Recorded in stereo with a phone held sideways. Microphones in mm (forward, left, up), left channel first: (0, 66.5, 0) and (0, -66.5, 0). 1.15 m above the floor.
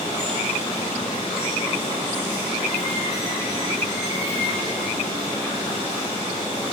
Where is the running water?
65° left (ahead or behind), 3 m.